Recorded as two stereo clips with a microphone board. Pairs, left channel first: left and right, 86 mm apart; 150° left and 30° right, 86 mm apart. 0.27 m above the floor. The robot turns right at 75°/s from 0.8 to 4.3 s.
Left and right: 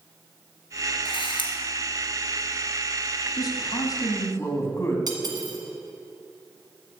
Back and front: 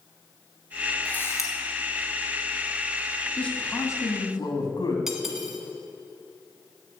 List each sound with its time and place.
1.1 s a camera shutter: 75° left, 1.8 m; by 1.5 s 110° left, 1.8 m
3.4 s a man speaking: 70° left, 2 m; by 5.0 s 140° left, 2 m
5.1 s cutlery clinking: 115° right, 1.5 m